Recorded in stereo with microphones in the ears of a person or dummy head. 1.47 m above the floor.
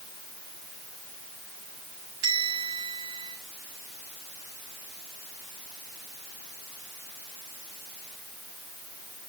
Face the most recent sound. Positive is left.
turn(degrees=-65)  # may be behind; listen again after turning